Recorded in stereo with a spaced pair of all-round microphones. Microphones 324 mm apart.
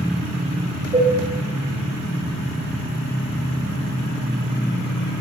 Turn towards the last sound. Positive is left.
turn(degrees=-20)  # may be behind; listen again after turning